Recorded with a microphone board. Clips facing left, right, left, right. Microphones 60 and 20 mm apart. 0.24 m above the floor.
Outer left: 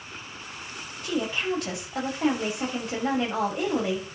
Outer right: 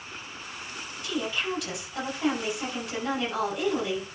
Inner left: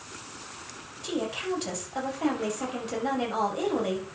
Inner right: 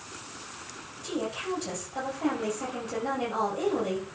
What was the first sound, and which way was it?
A woman speaking, 40° left (ahead or behind).